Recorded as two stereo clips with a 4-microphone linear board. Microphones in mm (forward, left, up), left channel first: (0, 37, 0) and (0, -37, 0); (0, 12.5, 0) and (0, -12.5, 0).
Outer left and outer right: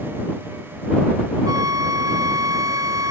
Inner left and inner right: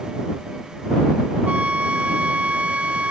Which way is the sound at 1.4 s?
50° right (ahead or behind).